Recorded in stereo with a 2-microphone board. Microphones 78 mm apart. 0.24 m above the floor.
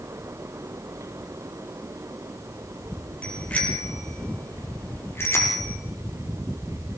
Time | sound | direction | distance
3.2 | a bicycle bell | 15° left (ahead or behind) | 4.5 m